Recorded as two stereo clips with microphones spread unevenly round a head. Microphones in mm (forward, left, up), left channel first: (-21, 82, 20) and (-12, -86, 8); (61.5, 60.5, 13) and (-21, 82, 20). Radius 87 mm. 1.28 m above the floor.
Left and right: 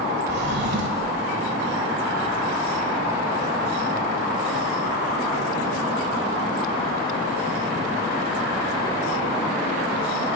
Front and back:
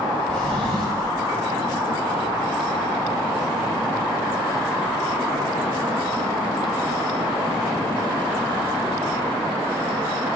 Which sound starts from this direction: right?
A drawer, at 0.3 s.